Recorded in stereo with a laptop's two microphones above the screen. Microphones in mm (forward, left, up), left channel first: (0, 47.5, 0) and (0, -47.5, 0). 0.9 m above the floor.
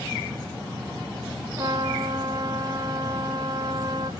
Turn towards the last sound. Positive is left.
turn(degrees=-40)  # may be behind; listen again after turning